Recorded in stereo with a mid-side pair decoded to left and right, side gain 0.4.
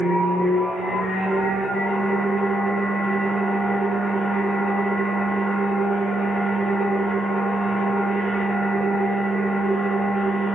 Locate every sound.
0.0 s a machine running: 65° left, 1.7 m